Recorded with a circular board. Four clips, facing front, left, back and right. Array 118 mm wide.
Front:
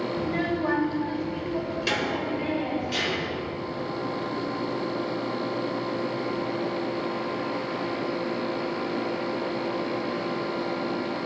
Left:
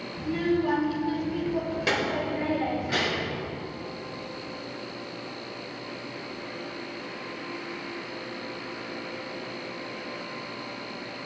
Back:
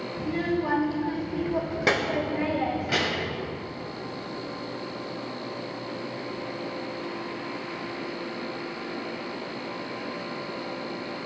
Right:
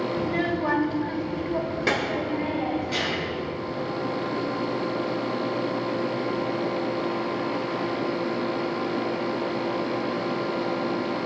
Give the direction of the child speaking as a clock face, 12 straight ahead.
2 o'clock.